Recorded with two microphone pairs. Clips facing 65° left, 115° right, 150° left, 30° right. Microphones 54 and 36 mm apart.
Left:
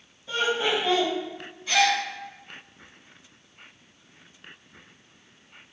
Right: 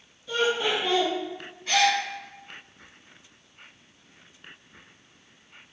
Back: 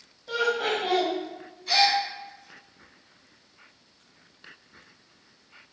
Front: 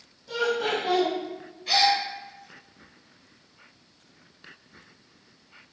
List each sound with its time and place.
0.3 s laughter: 130° left, 1.1 m
1.7 s a gasp: 75° right, 1.8 m